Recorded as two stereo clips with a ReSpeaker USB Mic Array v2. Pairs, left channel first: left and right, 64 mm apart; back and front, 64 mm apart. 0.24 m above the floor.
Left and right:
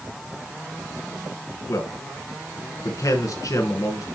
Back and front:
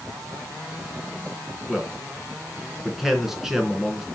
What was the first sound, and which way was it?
A man speaking, 85° left.